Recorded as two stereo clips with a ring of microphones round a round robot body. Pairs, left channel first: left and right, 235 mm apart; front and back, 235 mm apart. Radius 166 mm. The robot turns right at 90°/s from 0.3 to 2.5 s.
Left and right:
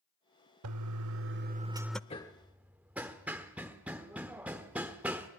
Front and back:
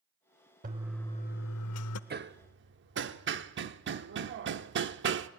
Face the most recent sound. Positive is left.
turn(degrees=-175)